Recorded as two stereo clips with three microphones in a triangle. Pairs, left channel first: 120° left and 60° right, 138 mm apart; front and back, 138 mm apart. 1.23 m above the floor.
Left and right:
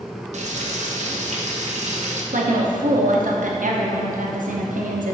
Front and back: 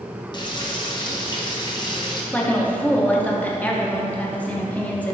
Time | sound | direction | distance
0.3 | frying | 50° right | 0.7 m
2.3 | a woman speaking | 80° right | 0.9 m